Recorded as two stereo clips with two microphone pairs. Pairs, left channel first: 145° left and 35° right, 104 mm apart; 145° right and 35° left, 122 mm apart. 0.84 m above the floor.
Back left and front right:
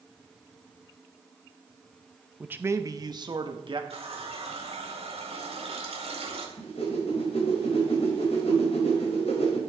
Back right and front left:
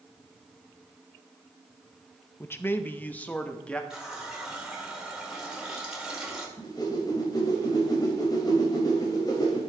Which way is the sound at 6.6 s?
160° left.